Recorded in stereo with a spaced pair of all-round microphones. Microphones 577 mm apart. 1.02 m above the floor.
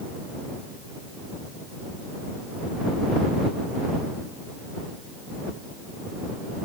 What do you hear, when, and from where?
Only background noise.